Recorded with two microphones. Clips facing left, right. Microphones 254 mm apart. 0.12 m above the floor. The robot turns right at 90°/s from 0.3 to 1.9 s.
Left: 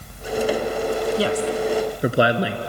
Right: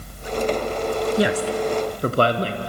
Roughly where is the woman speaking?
Centre.